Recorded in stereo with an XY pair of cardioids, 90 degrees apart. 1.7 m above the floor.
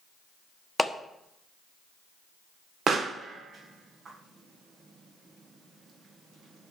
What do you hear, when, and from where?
0.8 s a clap: 5° left, 1.2 m
2.9 s a pop: 60° right, 1.2 m